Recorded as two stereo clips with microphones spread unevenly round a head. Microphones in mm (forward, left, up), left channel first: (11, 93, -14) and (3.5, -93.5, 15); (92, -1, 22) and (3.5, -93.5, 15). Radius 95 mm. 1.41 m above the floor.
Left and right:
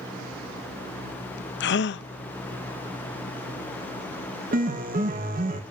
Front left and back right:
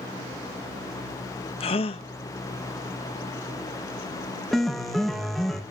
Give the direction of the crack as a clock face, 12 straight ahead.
I don't hear a crack.